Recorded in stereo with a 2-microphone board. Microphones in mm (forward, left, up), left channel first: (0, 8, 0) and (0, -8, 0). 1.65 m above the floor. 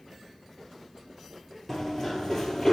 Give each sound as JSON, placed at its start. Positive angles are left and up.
{"t": 1.7, "sound": "running footsteps", "side_deg": 35, "distance_m": 1.9}